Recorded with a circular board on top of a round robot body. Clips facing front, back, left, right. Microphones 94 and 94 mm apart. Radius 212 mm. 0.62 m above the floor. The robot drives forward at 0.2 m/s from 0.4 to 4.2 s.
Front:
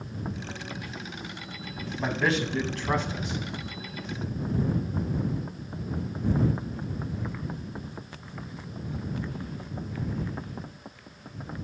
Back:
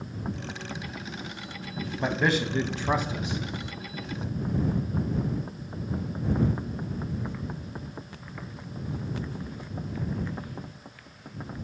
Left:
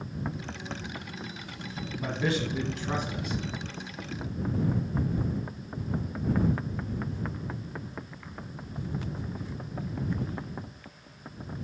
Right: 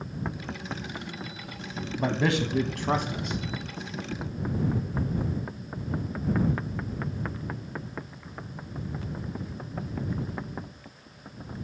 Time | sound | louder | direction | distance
2.0 | a man speaking | back 1 dB, right 4 dB | 100° right | 0.8 m